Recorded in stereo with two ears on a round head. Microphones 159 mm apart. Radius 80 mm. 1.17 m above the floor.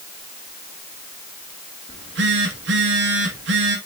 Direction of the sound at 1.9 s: 70° right (ahead or behind).